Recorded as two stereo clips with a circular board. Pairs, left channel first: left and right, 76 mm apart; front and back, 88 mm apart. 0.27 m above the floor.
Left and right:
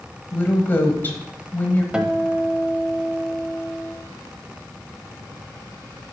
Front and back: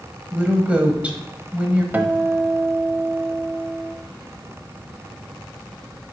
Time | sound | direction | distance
0.3 | a woman speaking | 120° left | 1.0 m
1.9 | a guitar | 150° right | 0.6 m